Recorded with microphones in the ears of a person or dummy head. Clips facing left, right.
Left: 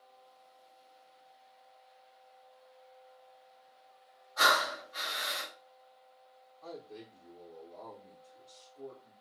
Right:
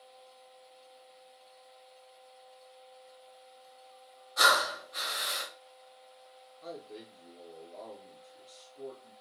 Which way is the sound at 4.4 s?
40° right (ahead or behind).